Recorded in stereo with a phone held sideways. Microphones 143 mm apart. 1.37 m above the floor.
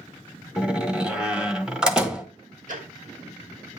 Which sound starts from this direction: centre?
A door slam, at 0.6 s.